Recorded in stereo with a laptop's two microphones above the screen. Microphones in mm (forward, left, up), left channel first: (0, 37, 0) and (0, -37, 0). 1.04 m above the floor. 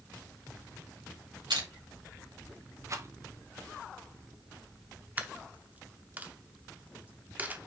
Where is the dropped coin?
20° right (ahead or behind), 0.8 m.